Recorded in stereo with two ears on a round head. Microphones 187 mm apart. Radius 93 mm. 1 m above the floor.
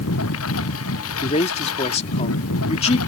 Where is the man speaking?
30° left (ahead or behind).